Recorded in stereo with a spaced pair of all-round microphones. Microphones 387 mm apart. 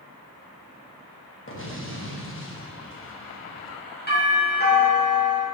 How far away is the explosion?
About 1.0 m.